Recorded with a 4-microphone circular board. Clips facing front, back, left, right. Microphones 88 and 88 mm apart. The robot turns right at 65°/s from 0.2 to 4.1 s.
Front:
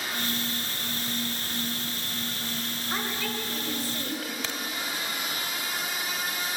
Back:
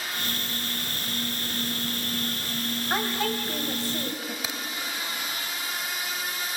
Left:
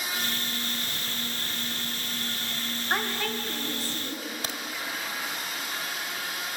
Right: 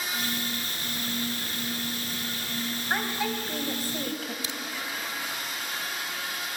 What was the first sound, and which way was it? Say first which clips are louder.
A woman speaking: back 5 dB, even; straight behind.